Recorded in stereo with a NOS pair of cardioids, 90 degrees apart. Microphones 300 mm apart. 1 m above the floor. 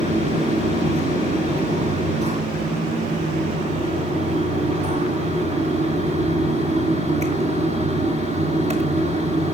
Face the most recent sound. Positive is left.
turn(degrees=-25)